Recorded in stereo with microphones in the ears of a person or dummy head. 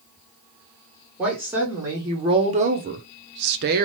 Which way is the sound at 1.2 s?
5° right (ahead or behind).